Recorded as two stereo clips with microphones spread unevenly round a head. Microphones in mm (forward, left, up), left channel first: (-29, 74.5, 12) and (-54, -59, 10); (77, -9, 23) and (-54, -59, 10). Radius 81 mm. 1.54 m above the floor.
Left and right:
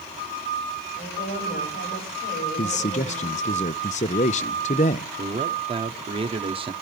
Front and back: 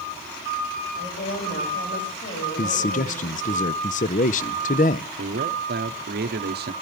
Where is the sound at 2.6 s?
45° left, 0.6 m.